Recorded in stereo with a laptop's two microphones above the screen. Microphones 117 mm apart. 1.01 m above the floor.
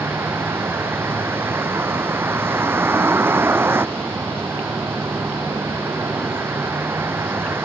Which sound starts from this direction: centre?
A vehicle, at 0.0 s.